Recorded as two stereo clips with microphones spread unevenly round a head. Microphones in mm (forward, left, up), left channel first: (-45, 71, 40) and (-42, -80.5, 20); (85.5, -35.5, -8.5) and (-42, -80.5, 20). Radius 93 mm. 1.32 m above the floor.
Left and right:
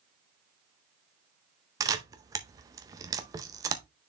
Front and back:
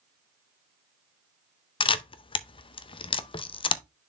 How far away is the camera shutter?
About 0.5 m.